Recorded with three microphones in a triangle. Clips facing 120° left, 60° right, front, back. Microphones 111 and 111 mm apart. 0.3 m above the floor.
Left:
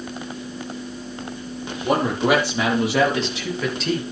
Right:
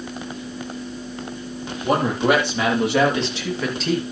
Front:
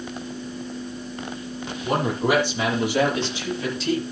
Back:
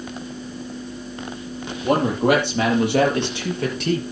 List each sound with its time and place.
1.8 s a man speaking: 155° right, 7.5 m; by 4.0 s 150° right, 5 m